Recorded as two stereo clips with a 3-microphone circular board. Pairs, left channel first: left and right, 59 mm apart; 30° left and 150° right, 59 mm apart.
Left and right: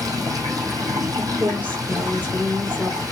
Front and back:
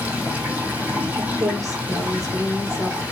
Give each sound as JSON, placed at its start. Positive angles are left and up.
{"t": 0.0, "sound": "running water", "azimuth_deg": -85, "distance_m": 2.5}
{"t": 1.2, "sound": "a woman speaking", "azimuth_deg": -155, "distance_m": 3.5}